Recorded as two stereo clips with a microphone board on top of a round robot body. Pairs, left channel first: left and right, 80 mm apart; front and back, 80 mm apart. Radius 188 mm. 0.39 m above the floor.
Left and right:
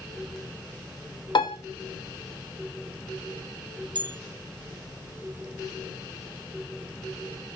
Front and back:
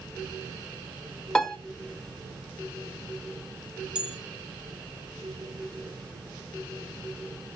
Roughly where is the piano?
Left.